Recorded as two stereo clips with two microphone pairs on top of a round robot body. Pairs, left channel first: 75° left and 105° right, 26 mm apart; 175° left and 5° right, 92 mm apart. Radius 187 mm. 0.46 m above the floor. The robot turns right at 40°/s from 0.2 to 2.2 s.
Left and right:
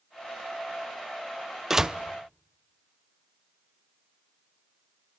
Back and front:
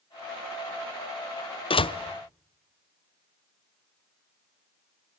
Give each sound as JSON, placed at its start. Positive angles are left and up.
{"t": 1.7, "sound": "a door slam", "azimuth_deg": 180, "distance_m": 1.0}